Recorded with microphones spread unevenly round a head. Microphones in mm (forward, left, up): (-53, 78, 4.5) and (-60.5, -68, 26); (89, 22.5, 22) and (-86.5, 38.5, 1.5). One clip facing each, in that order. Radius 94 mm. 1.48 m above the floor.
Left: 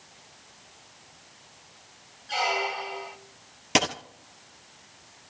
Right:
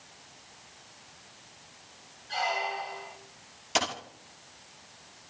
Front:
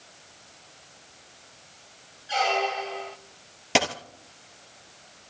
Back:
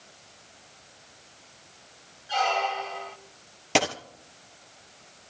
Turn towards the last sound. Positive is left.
turn(degrees=75)